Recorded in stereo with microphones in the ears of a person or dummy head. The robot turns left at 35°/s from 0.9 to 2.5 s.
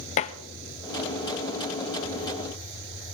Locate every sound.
0.2 s dishes clattering: 30° left (ahead or behind), 0.7 m